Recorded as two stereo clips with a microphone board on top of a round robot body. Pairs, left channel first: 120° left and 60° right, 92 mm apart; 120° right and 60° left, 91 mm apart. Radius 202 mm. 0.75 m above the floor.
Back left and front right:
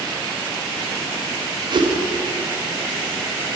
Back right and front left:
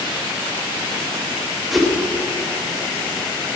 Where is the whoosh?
30° right, 1.4 m.